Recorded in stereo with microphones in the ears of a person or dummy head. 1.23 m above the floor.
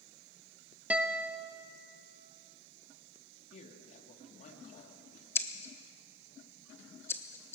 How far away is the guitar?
About 1.1 m.